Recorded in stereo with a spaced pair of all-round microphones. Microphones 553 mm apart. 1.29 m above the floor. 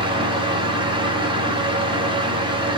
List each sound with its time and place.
0.0 s a fan: 10° right (ahead or behind), 1.0 m